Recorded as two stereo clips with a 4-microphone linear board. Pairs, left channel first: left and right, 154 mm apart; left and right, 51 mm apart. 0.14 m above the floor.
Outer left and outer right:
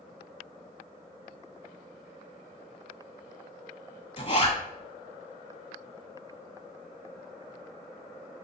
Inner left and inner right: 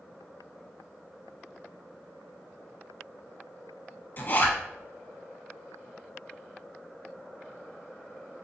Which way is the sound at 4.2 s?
45° left (ahead or behind).